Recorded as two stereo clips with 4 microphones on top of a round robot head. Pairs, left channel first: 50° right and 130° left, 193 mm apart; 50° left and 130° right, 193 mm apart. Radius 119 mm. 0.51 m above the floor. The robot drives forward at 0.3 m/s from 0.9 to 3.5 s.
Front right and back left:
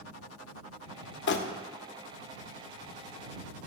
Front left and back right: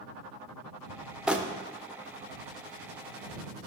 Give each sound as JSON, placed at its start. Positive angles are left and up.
{"t": 1.3, "sound": "crumpling", "azimuth_deg": -45, "distance_m": 0.5}